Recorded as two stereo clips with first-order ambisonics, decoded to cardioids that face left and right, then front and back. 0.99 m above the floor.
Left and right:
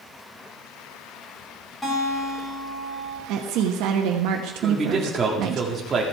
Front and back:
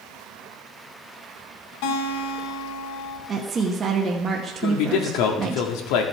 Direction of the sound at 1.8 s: 5° left.